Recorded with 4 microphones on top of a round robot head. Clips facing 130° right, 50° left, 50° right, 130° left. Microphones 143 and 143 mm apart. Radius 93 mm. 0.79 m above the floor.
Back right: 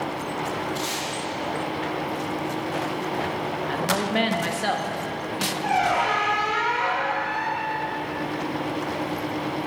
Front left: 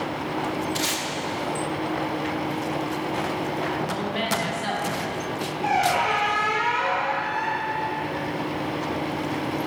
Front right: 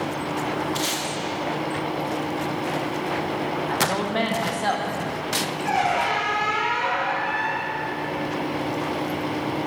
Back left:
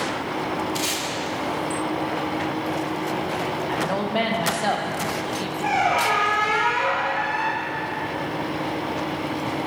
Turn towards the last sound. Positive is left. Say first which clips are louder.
# even, back left 1 dB
turn(degrees=130)